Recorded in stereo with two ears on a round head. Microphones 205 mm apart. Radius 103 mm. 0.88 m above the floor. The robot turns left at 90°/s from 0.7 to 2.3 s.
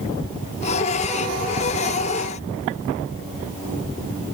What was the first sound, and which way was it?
Only background noise.